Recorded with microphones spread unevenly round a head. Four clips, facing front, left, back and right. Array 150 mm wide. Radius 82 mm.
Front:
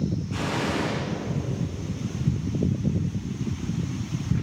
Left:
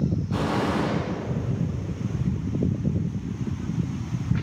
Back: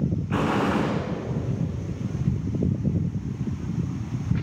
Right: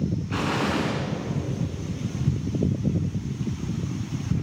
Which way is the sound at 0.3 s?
165° right.